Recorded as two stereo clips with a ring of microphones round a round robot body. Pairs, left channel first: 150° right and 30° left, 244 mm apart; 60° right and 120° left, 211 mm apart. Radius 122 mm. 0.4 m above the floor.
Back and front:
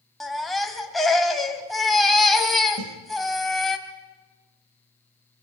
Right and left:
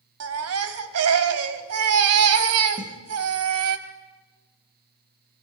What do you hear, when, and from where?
0.2 s a baby crying: 120° left, 1.8 m
2.8 s a snare drum: 50° left, 3 m